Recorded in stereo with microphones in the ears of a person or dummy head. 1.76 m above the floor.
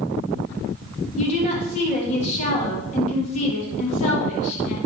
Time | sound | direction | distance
1.2 | a woman speaking | 45° left (ahead or behind) | 3 m